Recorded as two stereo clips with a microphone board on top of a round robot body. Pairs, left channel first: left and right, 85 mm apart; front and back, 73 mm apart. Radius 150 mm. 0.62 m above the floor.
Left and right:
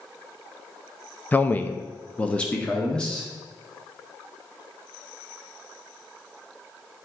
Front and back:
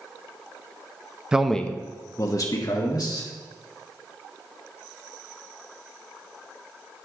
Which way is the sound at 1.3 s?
120° left.